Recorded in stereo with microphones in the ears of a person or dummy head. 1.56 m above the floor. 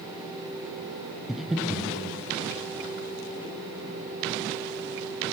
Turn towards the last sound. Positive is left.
turn(degrees=0)  # may be behind; listen again after turning